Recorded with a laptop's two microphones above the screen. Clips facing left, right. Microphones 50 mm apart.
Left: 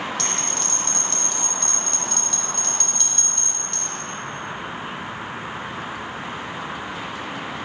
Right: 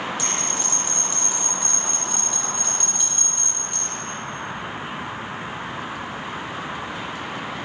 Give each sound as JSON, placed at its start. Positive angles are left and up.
{"t": 0.2, "sound": "a bell", "side_deg": -15, "distance_m": 2.0}